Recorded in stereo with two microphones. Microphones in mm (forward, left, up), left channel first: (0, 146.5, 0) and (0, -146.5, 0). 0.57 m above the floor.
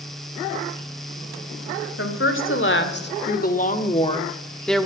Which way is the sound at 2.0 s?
50° left (ahead or behind).